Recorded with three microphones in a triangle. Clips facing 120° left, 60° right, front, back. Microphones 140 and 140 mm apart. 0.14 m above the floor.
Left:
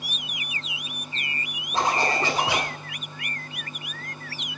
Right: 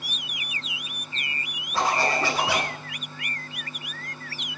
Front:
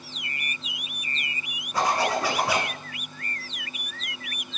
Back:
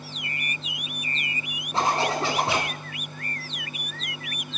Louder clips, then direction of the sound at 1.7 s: Even, even; 160° left.